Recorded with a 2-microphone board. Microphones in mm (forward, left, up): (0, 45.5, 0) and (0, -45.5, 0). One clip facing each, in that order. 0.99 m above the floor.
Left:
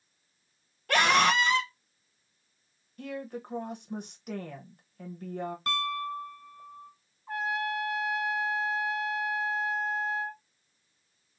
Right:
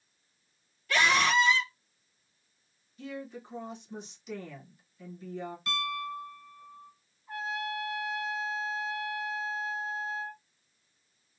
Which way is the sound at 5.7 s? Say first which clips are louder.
Left 2 dB; 50° left (ahead or behind).